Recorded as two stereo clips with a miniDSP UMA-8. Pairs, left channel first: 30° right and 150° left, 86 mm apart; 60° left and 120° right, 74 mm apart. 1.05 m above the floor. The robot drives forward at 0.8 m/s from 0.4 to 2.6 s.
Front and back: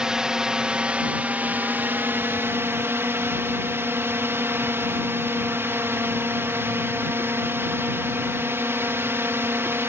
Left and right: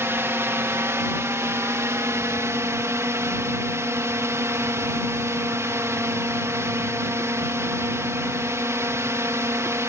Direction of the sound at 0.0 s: 135° right.